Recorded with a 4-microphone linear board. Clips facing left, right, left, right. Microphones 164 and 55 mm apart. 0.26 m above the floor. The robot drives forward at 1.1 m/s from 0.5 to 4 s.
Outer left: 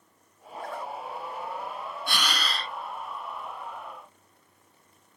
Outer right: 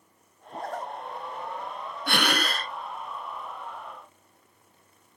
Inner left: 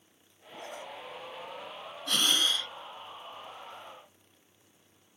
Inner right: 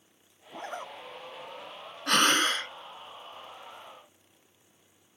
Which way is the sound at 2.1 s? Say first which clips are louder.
Outer right 6 dB, inner right 5 dB; 60° right (ahead or behind).